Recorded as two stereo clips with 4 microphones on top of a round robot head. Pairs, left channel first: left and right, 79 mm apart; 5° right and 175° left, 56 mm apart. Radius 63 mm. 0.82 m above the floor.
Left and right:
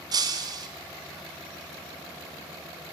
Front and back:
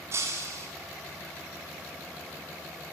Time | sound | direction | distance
0.1 | breaking glass | 130° right | 2.5 m